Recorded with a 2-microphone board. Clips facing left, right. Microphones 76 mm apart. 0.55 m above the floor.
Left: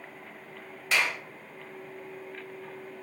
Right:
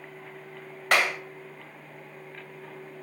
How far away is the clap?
About 2.5 m.